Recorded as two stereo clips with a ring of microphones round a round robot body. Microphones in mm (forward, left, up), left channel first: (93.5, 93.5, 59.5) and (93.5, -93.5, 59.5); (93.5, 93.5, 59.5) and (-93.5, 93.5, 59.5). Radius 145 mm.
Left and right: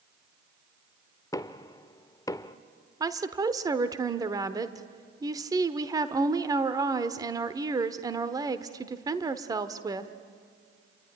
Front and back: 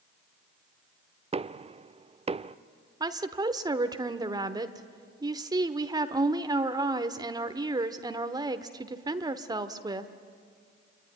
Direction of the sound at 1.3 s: 150° left.